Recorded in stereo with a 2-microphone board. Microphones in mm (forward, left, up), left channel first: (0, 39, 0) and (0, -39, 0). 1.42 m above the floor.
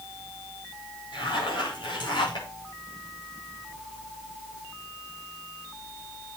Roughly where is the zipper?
Left.